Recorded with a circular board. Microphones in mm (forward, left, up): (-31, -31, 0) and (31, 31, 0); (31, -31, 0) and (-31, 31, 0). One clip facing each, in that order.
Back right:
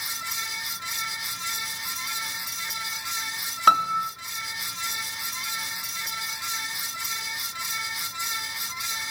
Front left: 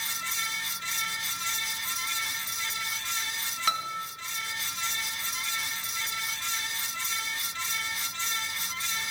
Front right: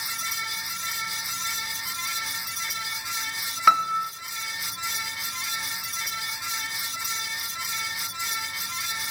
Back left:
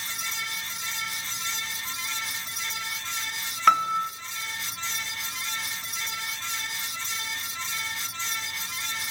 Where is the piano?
130° right, 0.6 m.